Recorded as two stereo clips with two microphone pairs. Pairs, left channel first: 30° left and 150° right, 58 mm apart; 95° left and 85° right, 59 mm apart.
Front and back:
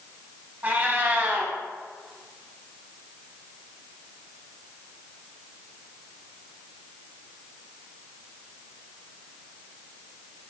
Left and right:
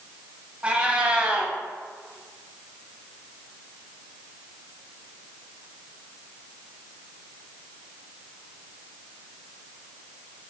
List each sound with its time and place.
0.6 s a cat meowing: 130° right, 0.6 m